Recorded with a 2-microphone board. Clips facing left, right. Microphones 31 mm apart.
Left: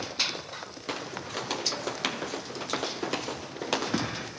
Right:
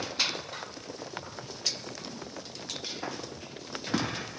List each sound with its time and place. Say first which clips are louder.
0.9 s footsteps: left 5 dB; 75° left (ahead or behind); by 4.3 s 70° left (ahead or behind)